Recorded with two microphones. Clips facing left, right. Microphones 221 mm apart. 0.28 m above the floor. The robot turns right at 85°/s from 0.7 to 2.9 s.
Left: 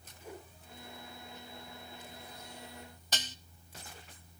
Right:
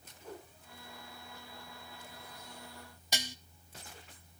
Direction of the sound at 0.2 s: 10° left (ahead or behind).